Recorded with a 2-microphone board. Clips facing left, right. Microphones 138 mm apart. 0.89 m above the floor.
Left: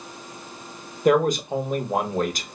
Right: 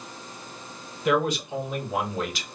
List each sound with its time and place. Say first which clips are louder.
1.1 s a man speaking: left 5 dB; 45° left (ahead or behind), 0.6 m